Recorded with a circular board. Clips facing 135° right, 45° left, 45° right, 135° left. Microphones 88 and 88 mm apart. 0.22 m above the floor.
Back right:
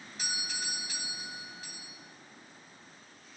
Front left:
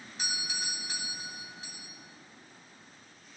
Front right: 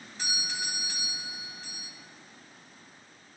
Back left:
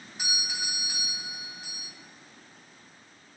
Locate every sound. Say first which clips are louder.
0.2 s a doorbell: front left 1 dB, even; 80° left, 1.5 m